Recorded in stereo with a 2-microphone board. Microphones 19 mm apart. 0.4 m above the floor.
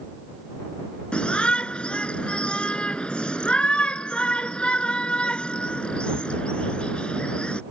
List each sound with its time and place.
1.1 s a shout: 75° left (ahead or behind)